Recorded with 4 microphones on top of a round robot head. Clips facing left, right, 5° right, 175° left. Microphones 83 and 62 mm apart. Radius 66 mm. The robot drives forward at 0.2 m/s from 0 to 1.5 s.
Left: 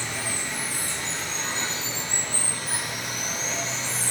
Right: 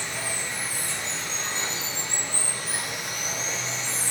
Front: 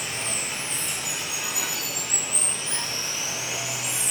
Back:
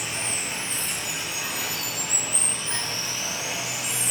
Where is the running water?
110° left, 1.0 m; by 4.1 s 125° left, 1.1 m.